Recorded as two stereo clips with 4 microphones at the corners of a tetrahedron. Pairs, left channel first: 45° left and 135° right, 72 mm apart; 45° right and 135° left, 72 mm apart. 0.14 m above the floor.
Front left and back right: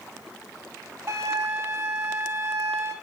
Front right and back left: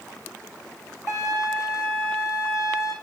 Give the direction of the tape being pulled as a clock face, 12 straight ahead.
No tape being pulled in this recording.